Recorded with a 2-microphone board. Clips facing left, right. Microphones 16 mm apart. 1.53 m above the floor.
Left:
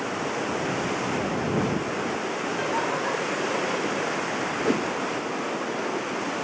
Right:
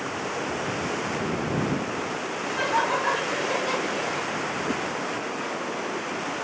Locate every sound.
2.4 s laughter: 25° right (ahead or behind); by 4.3 s 40° right (ahead or behind)
4.7 s a whoosh: 45° left (ahead or behind)